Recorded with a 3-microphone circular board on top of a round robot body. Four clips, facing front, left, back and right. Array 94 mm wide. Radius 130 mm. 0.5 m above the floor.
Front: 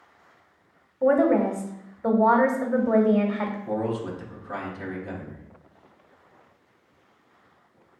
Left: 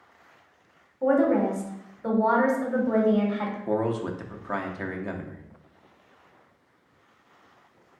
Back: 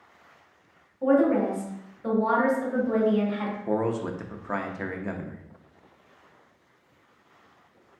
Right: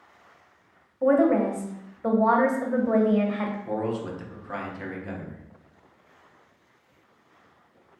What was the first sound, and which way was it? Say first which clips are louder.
A woman speaking: right 1 dB, front 2 dB; 25° right.